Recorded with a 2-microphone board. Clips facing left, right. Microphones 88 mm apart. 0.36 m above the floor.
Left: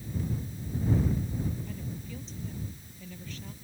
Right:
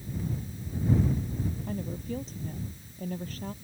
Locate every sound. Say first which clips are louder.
1.7 s a woman speaking: right 6 dB; 45° right (ahead or behind)